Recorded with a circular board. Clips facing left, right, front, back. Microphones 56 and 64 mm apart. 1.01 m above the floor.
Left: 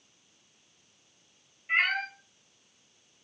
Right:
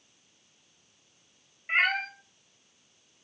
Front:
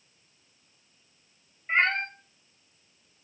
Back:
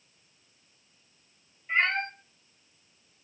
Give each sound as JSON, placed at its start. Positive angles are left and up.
{"t": 1.7, "sound": "a cat meowing", "azimuth_deg": -40, "distance_m": 1.3}